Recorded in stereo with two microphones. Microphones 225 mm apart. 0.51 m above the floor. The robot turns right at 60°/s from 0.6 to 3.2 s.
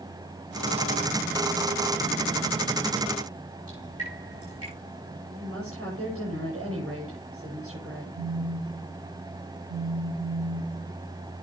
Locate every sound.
3.7 s dripping: 90° right, 9.5 m
5.3 s a woman speaking: 85° right, 10 m
8.2 s a phone buzzing: 65° right (ahead or behind), 9 m